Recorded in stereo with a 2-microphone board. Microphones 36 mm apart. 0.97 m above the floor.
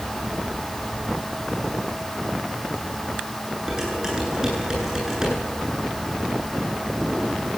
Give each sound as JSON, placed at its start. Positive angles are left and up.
{"t": 3.7, "sound": "dishes clattering", "side_deg": -20, "distance_m": 9.0}